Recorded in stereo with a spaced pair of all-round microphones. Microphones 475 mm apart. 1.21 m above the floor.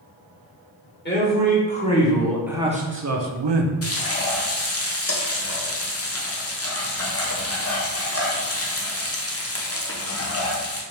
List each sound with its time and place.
1.1 s a man speaking: 20° left (ahead or behind), 1.5 m; by 3.7 s 75° right (ahead or behind), 0.6 m
3.8 s frying: 30° left (ahead or behind), 0.6 m